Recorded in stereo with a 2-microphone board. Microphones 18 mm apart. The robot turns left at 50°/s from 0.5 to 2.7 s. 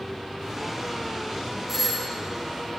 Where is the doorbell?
15° right (ahead or behind), 1.0 m; by 2.1 s 10° right (ahead or behind), 1.0 m.